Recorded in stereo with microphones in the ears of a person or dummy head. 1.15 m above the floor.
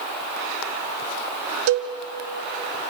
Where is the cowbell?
60° right (ahead or behind), 1.9 m.